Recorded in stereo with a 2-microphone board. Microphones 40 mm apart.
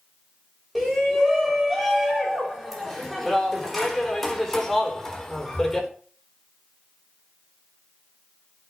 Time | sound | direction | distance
0.8 | a shout | 5° right (ahead or behind) | 6 m